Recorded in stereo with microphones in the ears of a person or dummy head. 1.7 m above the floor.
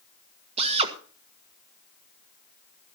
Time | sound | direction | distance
0.6 | a drill | 35° right (ahead or behind) | 1.4 m